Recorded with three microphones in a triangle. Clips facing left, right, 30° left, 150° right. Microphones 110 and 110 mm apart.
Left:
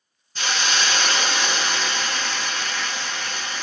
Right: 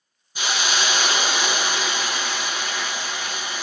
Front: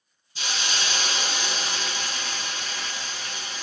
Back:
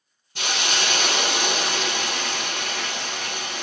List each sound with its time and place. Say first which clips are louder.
0.3 s a hiss: even, back 5 dB; 170° right, 0.7 m